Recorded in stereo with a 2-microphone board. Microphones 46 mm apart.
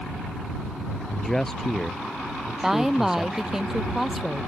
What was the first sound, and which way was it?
A man speaking, 10° left (ahead or behind).